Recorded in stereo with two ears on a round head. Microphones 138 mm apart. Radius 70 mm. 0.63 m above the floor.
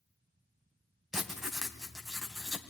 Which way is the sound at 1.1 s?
Centre (ahead or behind).